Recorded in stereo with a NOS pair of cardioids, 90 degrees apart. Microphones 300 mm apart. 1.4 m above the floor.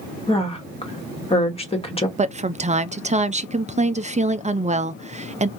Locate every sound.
0.3 s a woman speaking: 20° left, 1.7 m
2.2 s a woman speaking: 25° right, 0.5 m